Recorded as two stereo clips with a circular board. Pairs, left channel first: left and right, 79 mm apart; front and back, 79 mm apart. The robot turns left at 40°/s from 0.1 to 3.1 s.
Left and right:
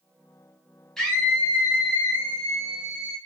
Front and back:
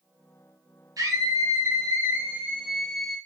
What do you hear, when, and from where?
1.0 s a scream: 170° left, 1.2 m; by 3.2 s 85° left, 1.2 m